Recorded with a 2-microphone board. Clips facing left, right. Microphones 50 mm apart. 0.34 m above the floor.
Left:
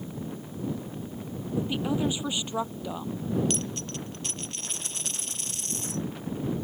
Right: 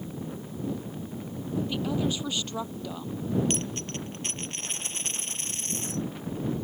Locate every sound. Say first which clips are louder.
1.6 s a woman speaking: left 1 dB; 15° left (ahead or behind)
3.5 s a dropped coin: right 1 dB; 35° right (ahead or behind)